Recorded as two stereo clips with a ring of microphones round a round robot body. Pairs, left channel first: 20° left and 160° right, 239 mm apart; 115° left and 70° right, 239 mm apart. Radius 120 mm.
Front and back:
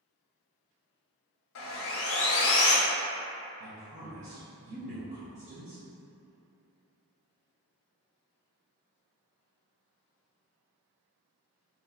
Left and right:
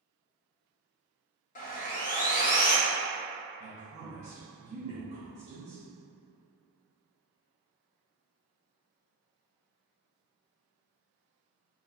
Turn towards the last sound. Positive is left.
turn(degrees=-115)